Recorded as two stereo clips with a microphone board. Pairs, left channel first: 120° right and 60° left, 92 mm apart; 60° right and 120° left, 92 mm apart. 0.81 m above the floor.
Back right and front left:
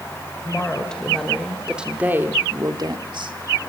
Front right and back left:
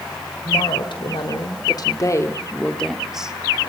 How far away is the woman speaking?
About 4 m.